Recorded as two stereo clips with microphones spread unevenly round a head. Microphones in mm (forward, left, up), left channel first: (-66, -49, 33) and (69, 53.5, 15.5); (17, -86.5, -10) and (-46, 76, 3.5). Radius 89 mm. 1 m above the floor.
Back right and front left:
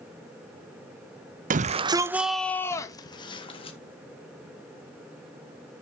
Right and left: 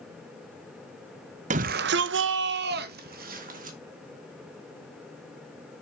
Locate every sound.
1.5 s a shout: 60° left, 0.7 m; by 3.8 s 155° left, 1.7 m